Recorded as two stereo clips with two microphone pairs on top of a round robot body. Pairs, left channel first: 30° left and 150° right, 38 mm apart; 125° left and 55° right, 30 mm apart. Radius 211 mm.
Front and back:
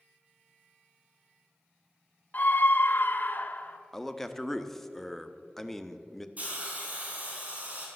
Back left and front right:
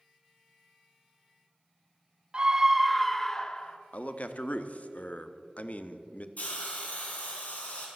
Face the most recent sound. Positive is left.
turn(degrees=155)